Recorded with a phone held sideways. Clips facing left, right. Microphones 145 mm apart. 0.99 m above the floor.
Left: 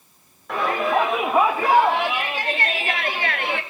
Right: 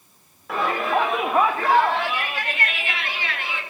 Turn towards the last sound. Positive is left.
turn(degrees=65)  # may be behind; listen again after turning